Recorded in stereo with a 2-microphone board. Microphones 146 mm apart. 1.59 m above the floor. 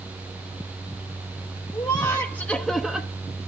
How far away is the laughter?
About 1.0 m.